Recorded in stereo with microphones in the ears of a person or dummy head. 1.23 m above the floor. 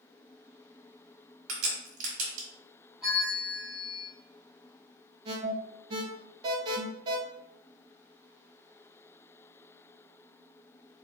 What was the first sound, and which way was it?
A crack, 70° right (ahead or behind).